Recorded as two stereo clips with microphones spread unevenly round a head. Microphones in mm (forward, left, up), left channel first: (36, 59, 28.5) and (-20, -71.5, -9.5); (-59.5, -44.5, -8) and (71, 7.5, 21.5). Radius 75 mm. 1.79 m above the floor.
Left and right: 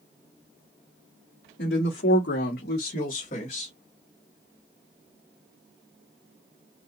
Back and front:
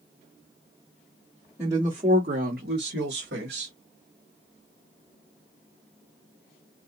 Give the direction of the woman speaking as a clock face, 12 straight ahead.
9 o'clock.